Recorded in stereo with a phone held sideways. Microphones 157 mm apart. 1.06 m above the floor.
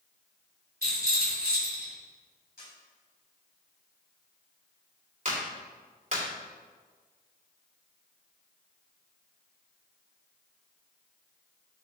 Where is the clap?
55° right (ahead or behind), 2.5 m.